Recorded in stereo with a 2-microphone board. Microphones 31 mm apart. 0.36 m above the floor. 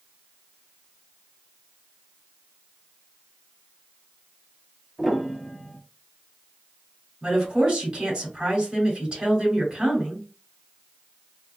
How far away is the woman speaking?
About 1.8 m.